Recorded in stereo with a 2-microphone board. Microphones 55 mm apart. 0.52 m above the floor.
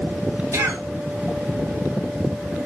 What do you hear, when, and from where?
0.5 s a cough: 75° right (ahead or behind), 4 m